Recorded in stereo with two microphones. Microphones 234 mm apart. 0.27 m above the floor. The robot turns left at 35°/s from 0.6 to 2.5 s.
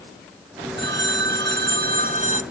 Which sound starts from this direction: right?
A phone ringing, at 0.8 s.